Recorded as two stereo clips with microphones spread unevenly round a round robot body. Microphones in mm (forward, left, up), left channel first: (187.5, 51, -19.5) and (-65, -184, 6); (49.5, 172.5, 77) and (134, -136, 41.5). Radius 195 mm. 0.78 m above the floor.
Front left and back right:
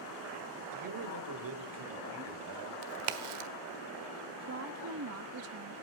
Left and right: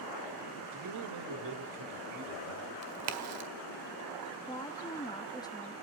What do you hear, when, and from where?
0.7 s a man speaking: 105° right, 2 m; by 2.7 s 110° right, 4 m
2.8 s a crack: 125° right, 1.5 m
4.5 s a woman speaking: 175° right, 0.7 m